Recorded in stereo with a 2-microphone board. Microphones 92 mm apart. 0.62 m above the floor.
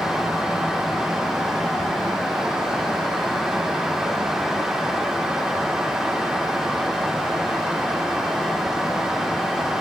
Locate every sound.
Only background noise.